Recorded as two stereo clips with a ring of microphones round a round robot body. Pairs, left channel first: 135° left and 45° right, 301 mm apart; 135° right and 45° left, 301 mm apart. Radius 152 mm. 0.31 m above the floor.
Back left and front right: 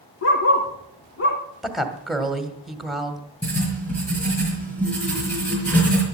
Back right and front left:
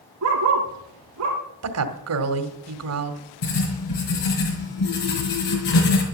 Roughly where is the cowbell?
No cowbell in this recording.